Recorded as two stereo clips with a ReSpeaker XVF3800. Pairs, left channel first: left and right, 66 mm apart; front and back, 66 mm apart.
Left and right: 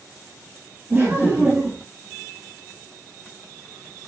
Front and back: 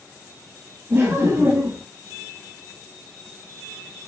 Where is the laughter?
135° right, 2 m.